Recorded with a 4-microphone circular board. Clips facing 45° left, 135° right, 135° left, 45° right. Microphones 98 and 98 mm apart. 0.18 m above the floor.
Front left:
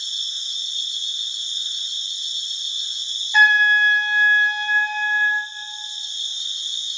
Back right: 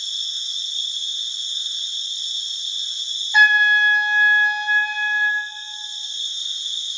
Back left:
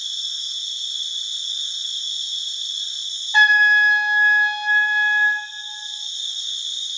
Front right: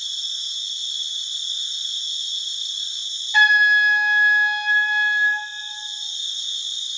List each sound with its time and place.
0.0 s an insect: 105° left, 1.9 m
3.3 s a trumpet: 150° left, 0.6 m